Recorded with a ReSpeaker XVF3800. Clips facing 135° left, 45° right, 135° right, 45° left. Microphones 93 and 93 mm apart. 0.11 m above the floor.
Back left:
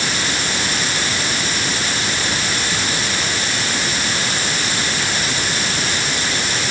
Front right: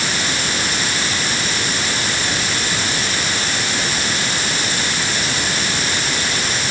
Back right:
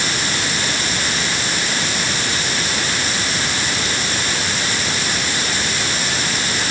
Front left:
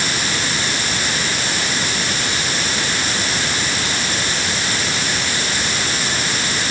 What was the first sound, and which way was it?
Only background noise.